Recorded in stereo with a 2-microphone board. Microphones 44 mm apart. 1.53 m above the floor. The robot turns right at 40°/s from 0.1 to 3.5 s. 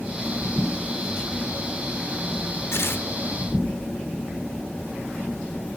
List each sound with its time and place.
2.7 s tearing paper: 75° left (ahead or behind), 2.0 m; by 3.1 s 70° left (ahead or behind), 2.0 m